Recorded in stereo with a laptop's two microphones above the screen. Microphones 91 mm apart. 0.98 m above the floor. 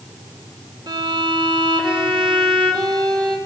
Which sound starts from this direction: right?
A violin, at 0.9 s.